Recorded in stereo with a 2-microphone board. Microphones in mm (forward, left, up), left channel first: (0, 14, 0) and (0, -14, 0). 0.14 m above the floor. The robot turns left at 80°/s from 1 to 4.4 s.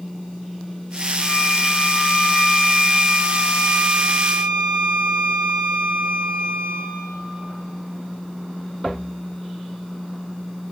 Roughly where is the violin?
Behind.